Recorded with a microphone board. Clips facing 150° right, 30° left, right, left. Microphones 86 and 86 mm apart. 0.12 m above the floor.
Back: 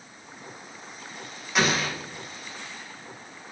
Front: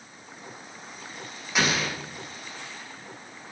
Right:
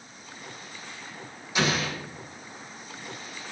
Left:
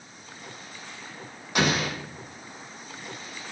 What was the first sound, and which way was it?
An explosion, 120° left.